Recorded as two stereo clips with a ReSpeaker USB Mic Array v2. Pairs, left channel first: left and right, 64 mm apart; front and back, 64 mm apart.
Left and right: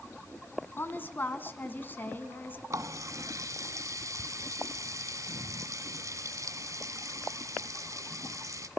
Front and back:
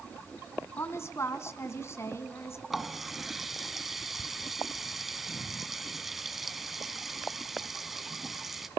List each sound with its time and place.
0.8 s a woman speaking: 40° left, 1.9 m
2.7 s a running tap: 90° right, 1.4 m